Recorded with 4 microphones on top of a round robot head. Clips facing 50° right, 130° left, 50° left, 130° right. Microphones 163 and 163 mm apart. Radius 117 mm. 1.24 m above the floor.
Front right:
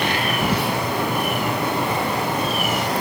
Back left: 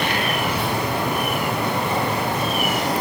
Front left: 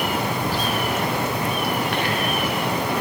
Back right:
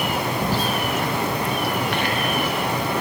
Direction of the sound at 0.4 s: 70° right.